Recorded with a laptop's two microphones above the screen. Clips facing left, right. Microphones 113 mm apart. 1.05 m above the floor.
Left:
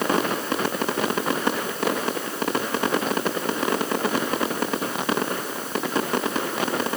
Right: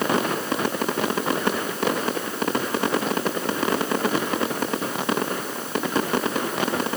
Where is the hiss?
No hiss in this recording.